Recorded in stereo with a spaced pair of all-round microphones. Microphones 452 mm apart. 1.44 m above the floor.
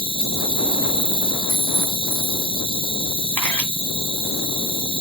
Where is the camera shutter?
45° right (ahead or behind), 1.8 m.